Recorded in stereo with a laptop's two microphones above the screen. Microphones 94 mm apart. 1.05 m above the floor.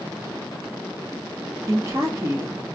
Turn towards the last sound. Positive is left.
turn(degrees=-30)  # may be behind; listen again after turning